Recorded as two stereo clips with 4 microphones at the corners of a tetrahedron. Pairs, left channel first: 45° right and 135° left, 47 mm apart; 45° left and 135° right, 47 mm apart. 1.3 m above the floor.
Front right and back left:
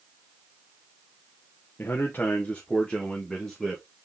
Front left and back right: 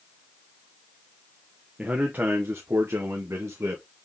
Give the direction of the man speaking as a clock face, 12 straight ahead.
2 o'clock.